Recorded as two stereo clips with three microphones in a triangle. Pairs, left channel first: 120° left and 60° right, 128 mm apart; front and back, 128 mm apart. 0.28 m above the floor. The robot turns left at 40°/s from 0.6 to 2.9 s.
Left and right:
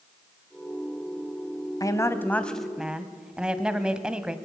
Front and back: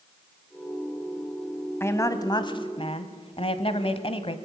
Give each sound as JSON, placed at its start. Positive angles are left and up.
{"t": 1.8, "sound": "a woman speaking", "azimuth_deg": 65, "distance_m": 1.5}